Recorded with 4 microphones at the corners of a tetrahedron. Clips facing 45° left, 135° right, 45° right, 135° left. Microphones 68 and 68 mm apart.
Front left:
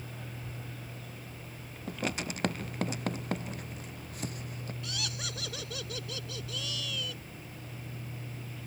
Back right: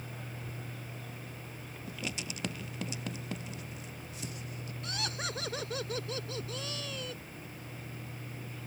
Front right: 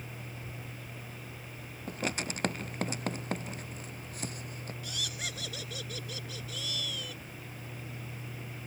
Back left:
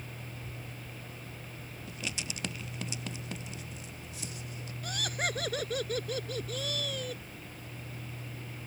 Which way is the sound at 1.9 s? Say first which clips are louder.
Front left 6 dB, front right 6 dB; straight ahead.